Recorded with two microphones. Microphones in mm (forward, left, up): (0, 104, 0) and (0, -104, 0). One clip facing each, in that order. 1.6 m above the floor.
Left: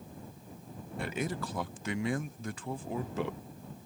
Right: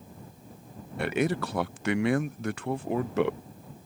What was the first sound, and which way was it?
A man speaking, 70° right (ahead or behind).